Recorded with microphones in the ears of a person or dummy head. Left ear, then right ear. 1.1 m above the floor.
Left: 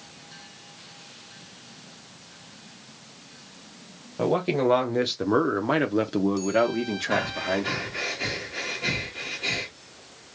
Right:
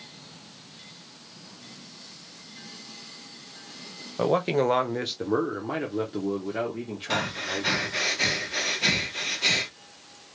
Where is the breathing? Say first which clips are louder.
Left 1 dB; 50° right (ahead or behind), 1.0 m.